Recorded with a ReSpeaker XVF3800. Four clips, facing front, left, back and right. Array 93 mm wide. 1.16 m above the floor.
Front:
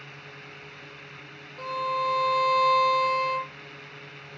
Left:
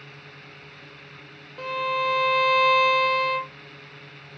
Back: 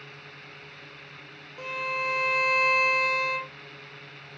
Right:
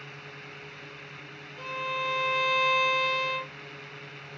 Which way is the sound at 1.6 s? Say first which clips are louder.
Left 7 dB, front 4 dB; 110° left.